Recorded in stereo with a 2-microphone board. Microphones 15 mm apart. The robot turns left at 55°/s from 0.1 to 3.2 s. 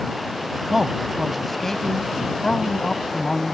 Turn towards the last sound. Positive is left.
turn(degrees=75)